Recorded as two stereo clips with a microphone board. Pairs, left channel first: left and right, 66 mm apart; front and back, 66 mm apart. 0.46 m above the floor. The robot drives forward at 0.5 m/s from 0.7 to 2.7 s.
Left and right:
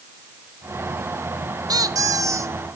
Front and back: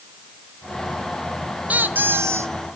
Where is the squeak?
110° right, 0.8 m; by 2.5 s 135° right, 1.0 m.